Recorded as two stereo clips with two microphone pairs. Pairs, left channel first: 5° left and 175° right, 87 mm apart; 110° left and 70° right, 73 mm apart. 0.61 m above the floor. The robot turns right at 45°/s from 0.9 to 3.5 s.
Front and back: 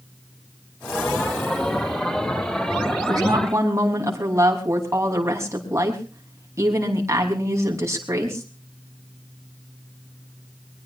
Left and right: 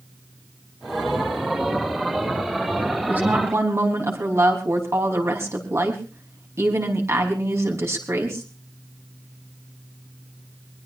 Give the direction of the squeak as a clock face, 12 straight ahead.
I don't hear a squeak.